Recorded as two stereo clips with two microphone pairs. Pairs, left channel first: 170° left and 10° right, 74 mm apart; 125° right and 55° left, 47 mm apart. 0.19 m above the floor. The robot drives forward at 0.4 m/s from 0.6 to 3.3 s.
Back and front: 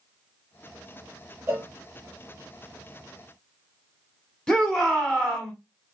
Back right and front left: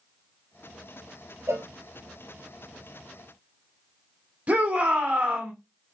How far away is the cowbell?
About 1.0 m.